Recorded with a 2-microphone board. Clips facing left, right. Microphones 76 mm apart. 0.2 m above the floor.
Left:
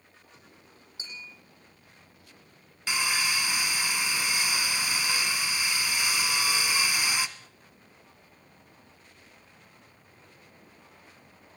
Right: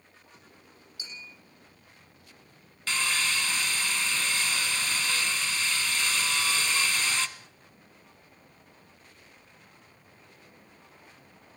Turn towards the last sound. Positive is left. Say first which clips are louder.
# left 1 dB
turn(degrees=10)  # may be behind; listen again after turning